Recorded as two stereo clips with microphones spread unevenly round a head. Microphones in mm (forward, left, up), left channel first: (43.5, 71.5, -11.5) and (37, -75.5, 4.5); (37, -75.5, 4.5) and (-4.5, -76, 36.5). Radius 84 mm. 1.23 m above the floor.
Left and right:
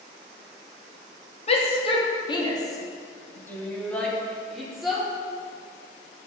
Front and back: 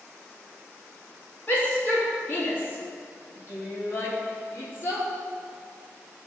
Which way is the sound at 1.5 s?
45° left.